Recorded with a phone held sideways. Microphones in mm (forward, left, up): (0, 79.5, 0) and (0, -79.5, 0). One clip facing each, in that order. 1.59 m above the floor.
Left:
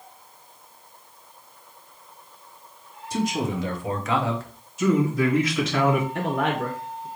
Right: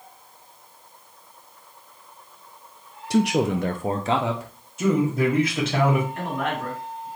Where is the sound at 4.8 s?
50° right (ahead or behind), 1.6 m.